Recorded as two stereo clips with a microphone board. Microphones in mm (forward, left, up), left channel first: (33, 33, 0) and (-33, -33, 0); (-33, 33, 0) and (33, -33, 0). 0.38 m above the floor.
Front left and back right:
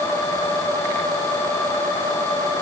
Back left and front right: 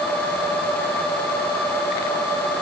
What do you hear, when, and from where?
Only background noise.